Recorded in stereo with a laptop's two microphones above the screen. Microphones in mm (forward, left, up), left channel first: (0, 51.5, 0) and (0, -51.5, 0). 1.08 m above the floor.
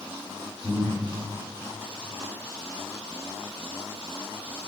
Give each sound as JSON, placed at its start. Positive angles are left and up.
{"t": 0.6, "sound": "breathing", "side_deg": 5, "distance_m": 2.5}